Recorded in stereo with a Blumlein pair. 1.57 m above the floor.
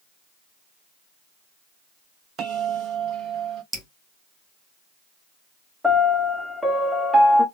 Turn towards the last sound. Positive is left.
turn(degrees=0)